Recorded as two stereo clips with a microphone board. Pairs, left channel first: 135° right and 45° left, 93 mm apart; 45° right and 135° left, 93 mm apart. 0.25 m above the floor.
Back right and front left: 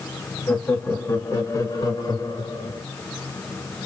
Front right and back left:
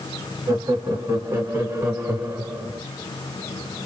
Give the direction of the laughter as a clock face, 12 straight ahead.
6 o'clock.